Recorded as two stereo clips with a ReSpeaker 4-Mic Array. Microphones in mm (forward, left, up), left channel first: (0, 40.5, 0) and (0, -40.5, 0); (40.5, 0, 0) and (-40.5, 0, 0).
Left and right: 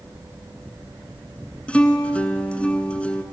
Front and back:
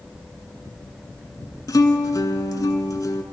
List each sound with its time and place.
1.7 s a guitar: 20° left, 0.7 m